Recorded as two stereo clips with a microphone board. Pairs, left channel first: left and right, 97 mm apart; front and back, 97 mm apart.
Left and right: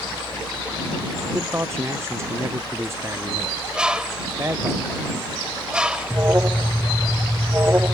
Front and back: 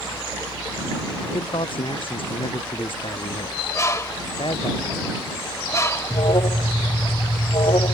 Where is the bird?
20° right.